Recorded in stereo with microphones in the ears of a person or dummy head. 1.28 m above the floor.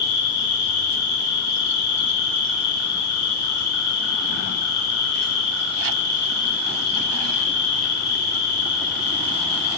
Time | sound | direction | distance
0.0 | an insect | 50° left (ahead or behind) | 3 m